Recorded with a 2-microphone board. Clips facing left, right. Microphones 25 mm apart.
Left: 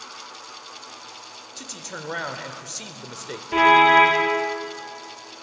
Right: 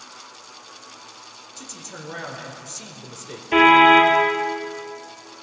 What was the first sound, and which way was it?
A man speaking, 30° left (ahead or behind).